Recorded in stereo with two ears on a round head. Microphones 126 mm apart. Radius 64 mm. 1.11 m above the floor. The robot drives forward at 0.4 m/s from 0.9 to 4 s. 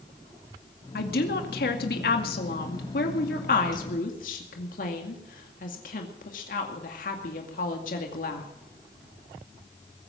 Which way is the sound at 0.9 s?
75° left (ahead or behind).